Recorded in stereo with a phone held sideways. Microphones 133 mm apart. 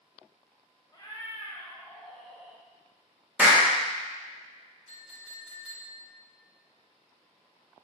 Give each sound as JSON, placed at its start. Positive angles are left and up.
{"t": 0.9, "sound": "a cat meowing", "side_deg": 30, "distance_m": 1.9}
{"t": 3.4, "sound": "a clap", "side_deg": -10, "distance_m": 2.5}
{"t": 4.9, "sound": "a clink", "side_deg": 50, "distance_m": 3.5}